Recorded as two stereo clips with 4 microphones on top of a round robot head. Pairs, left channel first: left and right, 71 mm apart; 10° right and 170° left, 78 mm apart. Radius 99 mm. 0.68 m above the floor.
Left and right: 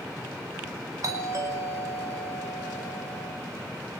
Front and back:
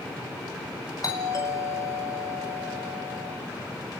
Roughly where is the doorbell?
Ahead right.